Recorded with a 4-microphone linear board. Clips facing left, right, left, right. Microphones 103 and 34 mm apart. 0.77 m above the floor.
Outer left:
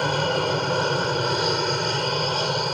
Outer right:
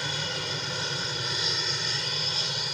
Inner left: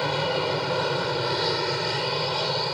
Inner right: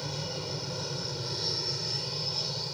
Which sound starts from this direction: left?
An aircraft, at 0.0 s.